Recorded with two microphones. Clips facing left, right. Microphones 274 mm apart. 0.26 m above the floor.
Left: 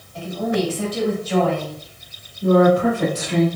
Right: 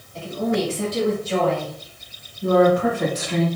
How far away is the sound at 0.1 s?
About 1.2 m.